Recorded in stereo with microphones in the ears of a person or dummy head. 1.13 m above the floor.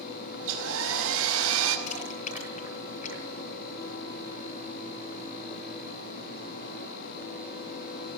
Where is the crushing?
40° left (ahead or behind), 9.5 m.